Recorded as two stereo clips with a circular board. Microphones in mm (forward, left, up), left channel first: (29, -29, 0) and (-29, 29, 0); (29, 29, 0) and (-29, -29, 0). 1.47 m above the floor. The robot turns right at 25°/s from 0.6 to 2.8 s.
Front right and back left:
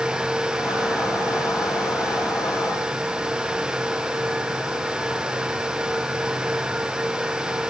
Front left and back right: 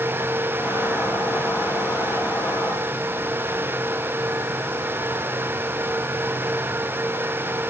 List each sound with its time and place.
Only background noise.